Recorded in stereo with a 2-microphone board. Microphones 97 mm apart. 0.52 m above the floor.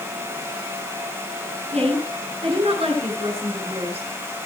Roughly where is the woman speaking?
Right.